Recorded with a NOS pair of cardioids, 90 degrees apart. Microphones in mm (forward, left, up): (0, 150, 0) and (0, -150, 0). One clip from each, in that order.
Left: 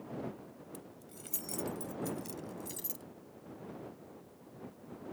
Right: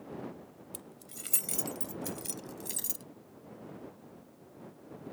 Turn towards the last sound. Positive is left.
turn(degrees=-50)